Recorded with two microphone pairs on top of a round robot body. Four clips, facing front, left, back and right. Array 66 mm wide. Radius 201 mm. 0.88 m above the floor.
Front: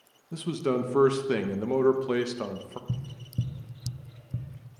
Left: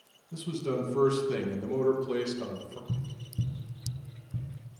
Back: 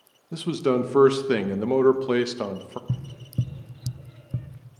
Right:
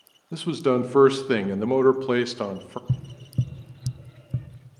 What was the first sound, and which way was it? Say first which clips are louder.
A man speaking: right 10 dB, back 5 dB; 115° right.